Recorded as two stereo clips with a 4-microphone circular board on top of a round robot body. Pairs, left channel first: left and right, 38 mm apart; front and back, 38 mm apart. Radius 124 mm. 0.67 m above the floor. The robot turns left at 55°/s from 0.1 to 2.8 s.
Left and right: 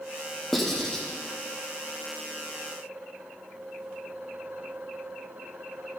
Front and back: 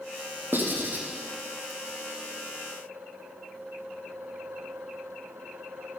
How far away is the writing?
About 1.7 m.